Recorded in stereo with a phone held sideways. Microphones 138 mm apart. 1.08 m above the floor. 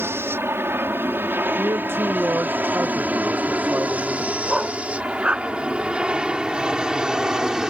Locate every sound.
0.0 s an aircraft: 15° right (ahead or behind); by 7.7 s 5° right (ahead or behind)
1.6 s a man speaking: 15° right (ahead or behind)
4.5 s a dog barking: 10° right (ahead or behind)